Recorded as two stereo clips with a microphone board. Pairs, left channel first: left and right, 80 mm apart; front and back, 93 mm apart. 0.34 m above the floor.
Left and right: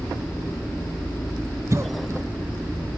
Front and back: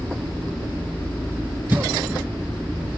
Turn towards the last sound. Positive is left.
turn(degrees=-120)